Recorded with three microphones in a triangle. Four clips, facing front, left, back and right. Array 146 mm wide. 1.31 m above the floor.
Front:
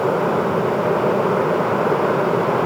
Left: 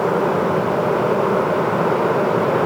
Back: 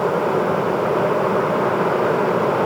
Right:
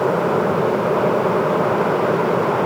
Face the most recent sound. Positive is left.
No sound to turn to.